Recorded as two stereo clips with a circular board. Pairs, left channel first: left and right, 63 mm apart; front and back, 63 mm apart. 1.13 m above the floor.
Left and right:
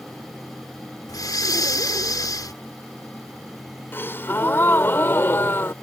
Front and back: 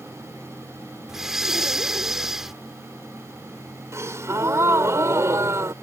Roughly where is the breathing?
Left.